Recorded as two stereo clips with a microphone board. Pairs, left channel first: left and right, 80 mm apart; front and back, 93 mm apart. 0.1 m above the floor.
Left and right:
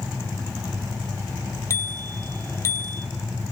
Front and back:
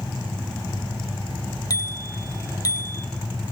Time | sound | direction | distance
1.7 | a bicycle bell | 45° left | 2 m